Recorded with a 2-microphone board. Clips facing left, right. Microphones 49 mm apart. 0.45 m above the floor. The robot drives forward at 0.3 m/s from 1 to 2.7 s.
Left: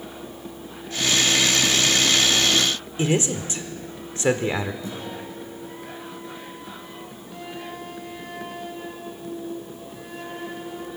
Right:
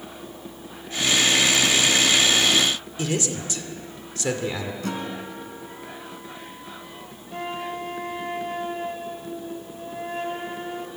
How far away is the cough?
No cough in this recording.